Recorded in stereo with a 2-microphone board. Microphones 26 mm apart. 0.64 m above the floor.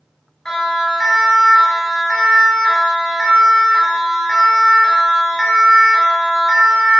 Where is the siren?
15° left (ahead or behind), 7 m; by 7.0 s 15° right (ahead or behind), 6 m.